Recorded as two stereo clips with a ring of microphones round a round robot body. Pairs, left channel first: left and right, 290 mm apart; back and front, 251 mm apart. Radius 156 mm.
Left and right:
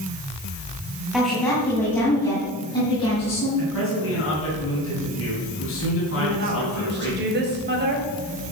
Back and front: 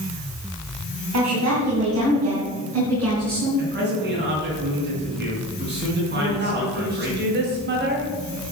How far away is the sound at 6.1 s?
About 2.5 m.